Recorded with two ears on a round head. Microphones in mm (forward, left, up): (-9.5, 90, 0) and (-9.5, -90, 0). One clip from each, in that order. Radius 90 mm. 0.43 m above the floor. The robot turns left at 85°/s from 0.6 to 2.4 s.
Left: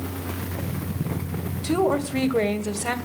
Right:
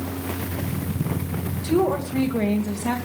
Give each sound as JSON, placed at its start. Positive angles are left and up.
{"t": 1.6, "sound": "a woman speaking", "azimuth_deg": 140, "distance_m": 2.0}